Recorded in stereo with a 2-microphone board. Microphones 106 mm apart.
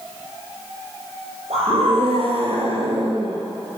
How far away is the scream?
About 5 m.